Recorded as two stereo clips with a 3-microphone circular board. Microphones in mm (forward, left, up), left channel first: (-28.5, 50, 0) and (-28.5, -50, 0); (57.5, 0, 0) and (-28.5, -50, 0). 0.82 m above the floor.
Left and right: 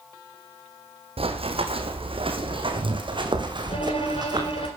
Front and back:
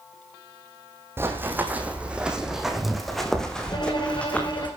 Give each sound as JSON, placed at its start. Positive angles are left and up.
{"t": 1.2, "sound": "running footsteps", "azimuth_deg": -85, "distance_m": 2.5}
{"t": 3.7, "sound": "a violin", "azimuth_deg": 75, "distance_m": 5.0}